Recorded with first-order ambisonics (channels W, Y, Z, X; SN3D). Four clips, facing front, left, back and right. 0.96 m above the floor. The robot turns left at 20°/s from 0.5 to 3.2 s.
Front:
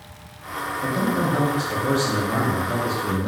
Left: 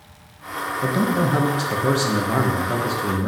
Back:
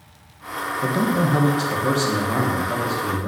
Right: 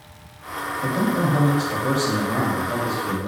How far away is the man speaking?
About 0.6 m.